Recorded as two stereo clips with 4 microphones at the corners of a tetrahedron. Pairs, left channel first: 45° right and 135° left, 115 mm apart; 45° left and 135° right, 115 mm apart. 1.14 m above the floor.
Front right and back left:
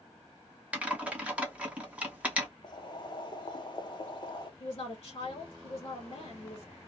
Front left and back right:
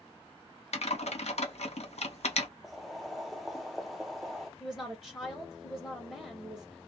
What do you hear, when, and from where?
0.7 s typing on a keyboard: 55° left, 0.7 m
2.6 s boiling: 45° right, 0.6 m
4.6 s a woman speaking: 40° right, 0.9 m